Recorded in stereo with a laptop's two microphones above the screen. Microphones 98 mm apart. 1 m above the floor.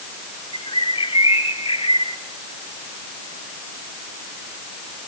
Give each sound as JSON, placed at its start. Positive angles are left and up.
{"t": 0.5, "sound": "a bird", "side_deg": 75, "distance_m": 2.5}